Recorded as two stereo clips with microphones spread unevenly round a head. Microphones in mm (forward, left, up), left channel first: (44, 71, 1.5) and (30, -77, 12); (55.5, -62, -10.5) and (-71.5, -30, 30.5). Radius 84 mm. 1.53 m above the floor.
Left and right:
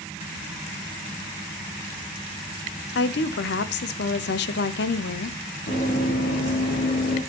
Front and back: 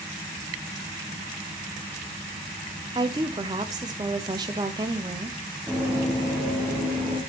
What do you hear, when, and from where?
3.0 s a woman speaking: 95° left, 0.6 m
5.7 s running footsteps: 95° left, 2.5 m; by 7.2 s 75° left, 3 m